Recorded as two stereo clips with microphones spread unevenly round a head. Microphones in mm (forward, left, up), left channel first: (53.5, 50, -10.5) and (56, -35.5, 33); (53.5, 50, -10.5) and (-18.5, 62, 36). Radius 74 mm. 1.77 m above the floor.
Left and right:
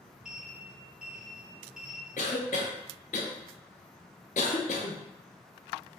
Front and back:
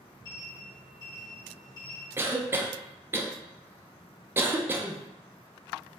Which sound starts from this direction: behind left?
A cough, at 2.2 s.